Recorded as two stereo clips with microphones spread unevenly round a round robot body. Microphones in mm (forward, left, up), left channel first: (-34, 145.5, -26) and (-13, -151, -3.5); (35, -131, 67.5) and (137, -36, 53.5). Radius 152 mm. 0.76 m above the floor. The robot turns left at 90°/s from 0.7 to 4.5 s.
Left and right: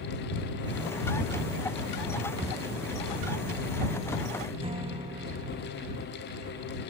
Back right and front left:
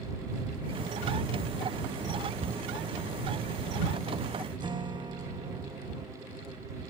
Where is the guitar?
15° right.